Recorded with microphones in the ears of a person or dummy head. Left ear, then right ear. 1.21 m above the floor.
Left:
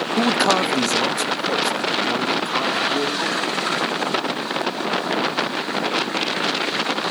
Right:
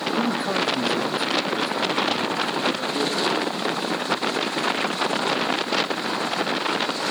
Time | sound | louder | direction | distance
0.2 | a man speaking | left 9 dB | 40° left (ahead or behind) | 0.7 m